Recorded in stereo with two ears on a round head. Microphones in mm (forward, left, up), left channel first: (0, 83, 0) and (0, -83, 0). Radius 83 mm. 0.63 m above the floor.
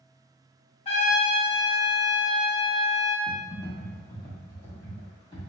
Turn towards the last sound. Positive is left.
turn(degrees=25)  # may be behind; listen again after turning